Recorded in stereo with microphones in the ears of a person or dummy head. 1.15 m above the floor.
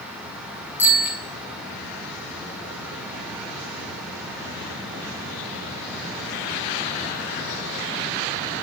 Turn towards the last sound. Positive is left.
turn(degrees=-10)  # may be behind; listen again after turning